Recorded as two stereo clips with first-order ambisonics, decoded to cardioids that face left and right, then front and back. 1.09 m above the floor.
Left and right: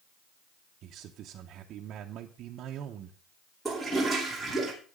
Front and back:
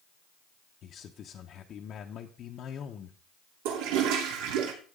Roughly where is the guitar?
No guitar in this recording.